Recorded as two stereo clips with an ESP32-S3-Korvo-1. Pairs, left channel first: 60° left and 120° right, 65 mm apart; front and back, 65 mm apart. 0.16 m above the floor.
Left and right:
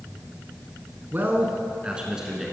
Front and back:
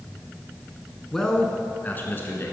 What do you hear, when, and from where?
1.1 s a man speaking: 80° right, 1.4 m; by 2.5 s 35° right, 1.6 m